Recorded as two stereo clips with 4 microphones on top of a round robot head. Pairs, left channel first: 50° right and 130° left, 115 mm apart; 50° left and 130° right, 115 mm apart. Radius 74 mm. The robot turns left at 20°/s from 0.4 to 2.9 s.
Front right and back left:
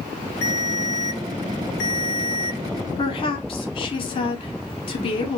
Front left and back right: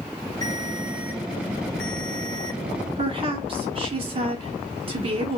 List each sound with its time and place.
0.4 s a ringtone: 10° right, 2.5 m; by 2.6 s 55° right, 2.5 m
3.0 s a woman speaking: 90° right, 1.5 m